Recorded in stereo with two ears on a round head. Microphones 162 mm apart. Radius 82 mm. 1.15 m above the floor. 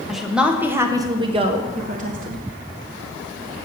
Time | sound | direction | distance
0.1 | a woman speaking | centre (ahead or behind) | 1.2 m